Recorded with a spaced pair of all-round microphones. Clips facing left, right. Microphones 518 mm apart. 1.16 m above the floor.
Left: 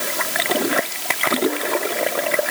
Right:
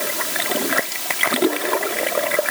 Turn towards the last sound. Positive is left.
No sound to turn to.